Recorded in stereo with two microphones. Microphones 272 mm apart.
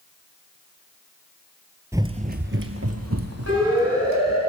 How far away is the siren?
About 7 m.